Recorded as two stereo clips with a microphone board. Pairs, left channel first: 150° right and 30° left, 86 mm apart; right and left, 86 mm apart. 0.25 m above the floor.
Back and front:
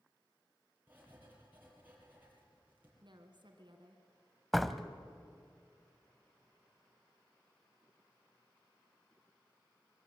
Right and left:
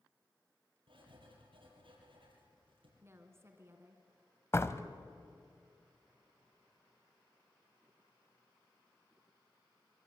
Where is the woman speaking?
35° left, 3 m.